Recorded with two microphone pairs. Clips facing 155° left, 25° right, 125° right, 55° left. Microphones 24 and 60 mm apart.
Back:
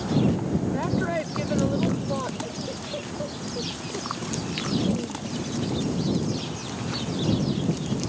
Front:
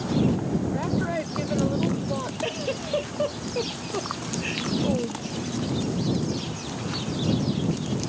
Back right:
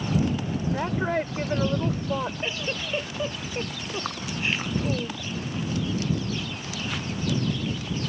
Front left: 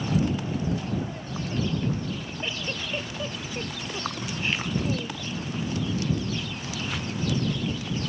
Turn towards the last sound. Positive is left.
turn(degrees=-50)